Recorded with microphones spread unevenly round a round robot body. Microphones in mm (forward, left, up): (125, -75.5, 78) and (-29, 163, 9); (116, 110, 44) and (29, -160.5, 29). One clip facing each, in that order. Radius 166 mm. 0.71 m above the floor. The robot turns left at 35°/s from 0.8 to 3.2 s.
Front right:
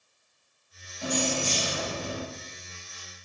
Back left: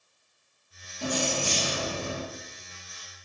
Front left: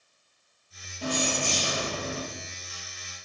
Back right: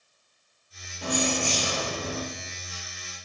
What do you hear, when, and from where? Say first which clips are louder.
1.0 s keys jangling: front right 1 dB, back right 2 dB; 165° left, 2.0 m; by 2.2 s 120° left, 2.0 m